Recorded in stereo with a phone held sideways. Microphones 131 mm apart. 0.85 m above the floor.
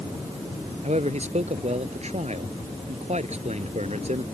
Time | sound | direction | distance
0.8 | a man speaking | 55° right (ahead or behind) | ?